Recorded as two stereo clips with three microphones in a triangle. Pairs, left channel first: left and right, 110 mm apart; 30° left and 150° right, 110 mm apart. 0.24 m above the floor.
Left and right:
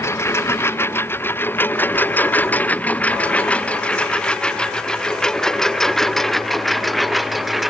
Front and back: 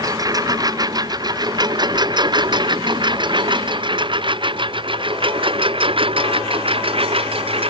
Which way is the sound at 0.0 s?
155° left.